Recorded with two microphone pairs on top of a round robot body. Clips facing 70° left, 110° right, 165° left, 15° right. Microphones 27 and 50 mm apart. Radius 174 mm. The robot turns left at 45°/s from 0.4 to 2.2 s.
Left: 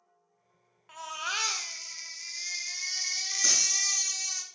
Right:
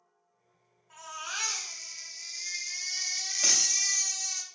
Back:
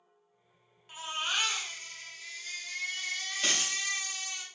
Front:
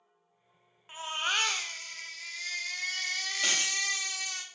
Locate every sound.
0.9 s a baby crying: 50° left, 0.5 m; by 4.4 s 10° right, 0.5 m
3.4 s a dropped coin: 95° right, 2.5 m